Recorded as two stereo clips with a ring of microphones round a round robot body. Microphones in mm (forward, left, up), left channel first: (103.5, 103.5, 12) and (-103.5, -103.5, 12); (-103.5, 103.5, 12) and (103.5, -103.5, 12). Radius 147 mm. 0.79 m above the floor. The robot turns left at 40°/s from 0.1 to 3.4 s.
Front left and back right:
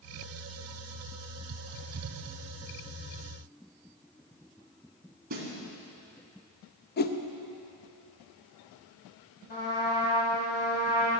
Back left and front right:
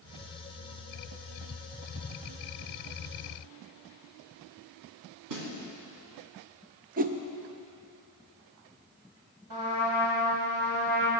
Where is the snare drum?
75° right, 2 m.